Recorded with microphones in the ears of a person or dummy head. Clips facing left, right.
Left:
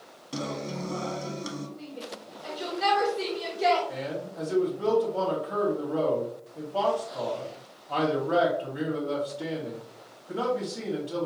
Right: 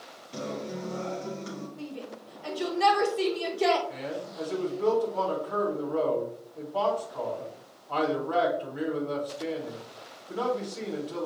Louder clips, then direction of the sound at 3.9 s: Left 2 dB; 25° left (ahead or behind).